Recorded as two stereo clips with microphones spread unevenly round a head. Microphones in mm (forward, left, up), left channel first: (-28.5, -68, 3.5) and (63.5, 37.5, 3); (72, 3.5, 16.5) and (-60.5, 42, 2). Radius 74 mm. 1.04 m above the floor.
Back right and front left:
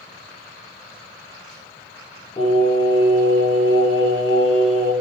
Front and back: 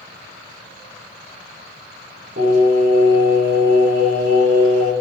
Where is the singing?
170° left, 4.5 m.